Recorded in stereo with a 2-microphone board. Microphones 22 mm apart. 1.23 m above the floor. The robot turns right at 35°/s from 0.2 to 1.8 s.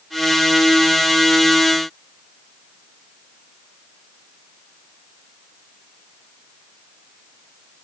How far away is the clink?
No clink in this recording.